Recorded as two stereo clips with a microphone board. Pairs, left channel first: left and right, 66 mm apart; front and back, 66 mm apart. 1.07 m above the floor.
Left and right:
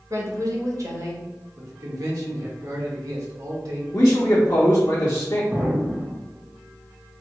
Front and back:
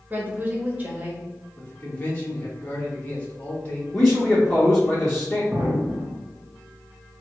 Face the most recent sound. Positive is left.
turn(degrees=-145)